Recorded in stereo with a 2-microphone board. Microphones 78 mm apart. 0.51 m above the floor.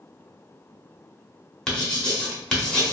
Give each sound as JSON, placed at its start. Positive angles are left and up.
{"t": 1.7, "sound": "writing", "side_deg": 10, "distance_m": 0.8}